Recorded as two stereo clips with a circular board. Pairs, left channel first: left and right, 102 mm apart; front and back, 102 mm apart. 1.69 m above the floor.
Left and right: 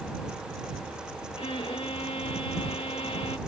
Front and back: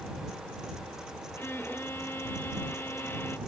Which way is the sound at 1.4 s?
65° left.